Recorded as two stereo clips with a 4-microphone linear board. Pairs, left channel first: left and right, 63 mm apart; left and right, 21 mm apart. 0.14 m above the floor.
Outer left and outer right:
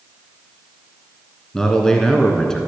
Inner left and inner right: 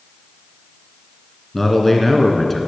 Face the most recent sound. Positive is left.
turn(degrees=10)  # may be behind; listen again after turning